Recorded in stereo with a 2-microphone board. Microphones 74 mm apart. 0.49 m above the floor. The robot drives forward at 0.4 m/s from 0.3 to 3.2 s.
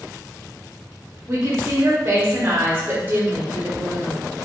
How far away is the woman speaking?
About 0.9 m.